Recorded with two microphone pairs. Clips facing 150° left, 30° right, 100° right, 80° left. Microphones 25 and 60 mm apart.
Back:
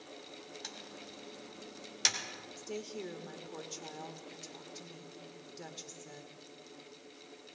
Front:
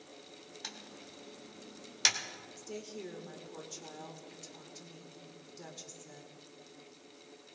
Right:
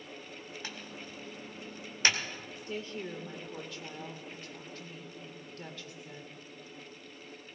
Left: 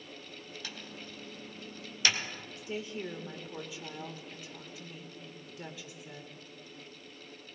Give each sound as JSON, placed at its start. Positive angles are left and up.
{"t": 0.6, "sound": "typing on a keyboard", "azimuth_deg": -95, "distance_m": 1.6}
{"t": 2.6, "sound": "a woman speaking", "azimuth_deg": 135, "distance_m": 1.1}